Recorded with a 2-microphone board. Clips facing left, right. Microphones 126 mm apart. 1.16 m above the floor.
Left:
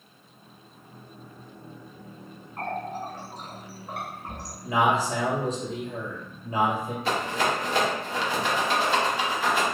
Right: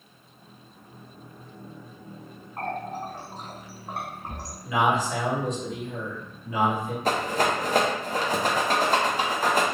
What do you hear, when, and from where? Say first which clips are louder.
2.6 s a running tap: even; 35° right (ahead or behind), 1.9 m
4.6 s a man speaking: even; 35° left (ahead or behind), 1.3 m
7.0 s a rattle: right 2 dB; 45° right (ahead or behind), 0.5 m